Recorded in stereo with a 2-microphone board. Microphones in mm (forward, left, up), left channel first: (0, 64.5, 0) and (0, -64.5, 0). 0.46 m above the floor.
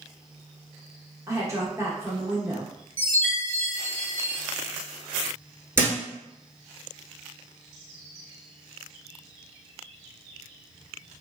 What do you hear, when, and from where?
1.3 s a woman speaking: 20° right (ahead or behind), 0.7 m
3.0 s a chime: 45° left (ahead or behind), 1.2 m
5.8 s a thud: 20° right (ahead or behind), 0.8 m